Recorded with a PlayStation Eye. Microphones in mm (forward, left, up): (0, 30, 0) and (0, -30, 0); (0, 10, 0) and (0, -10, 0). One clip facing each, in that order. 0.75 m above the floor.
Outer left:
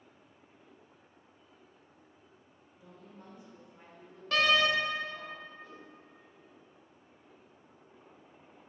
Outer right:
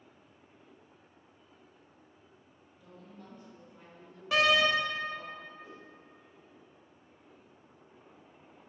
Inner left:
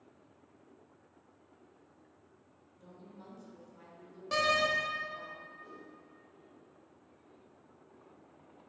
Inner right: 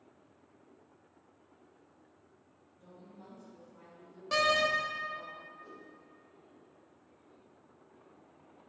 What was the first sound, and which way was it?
A woman speaking, 20° left (ahead or behind).